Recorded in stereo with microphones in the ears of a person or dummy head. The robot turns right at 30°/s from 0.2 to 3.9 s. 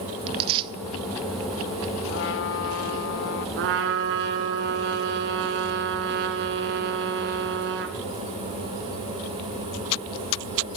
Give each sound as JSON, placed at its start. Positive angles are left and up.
{"t": 0.3, "sound": "tearing paper", "side_deg": -35, "distance_m": 0.6}
{"t": 2.1, "sound": "a trumpet", "azimuth_deg": 60, "distance_m": 1.8}
{"t": 3.6, "sound": "a trumpet", "side_deg": -55, "distance_m": 1.9}